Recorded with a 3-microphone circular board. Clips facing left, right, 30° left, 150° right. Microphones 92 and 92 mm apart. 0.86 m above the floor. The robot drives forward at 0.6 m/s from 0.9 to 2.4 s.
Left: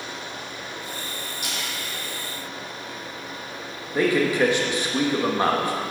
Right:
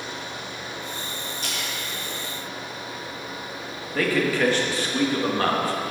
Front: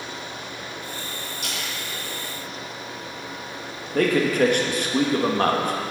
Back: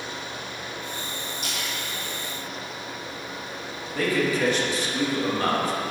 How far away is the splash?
About 2 m.